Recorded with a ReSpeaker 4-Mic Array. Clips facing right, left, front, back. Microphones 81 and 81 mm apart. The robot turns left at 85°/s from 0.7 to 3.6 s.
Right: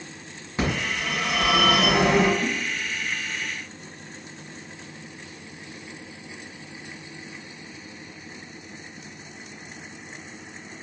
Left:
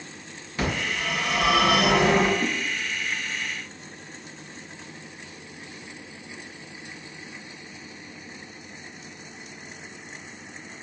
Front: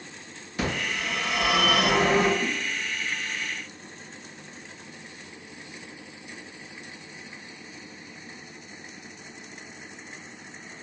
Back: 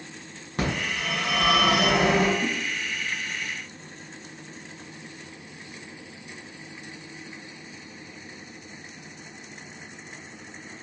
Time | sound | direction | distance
0.6 | a phone ringing | 155° right | 2.0 m
2.4 | a whoosh | 75° left | 0.7 m